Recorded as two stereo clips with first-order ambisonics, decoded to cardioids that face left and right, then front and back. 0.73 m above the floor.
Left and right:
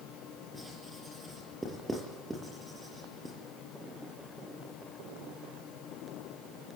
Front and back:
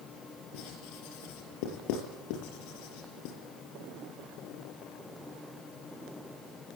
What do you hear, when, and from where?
0.5 s writing: 10° right, 6 m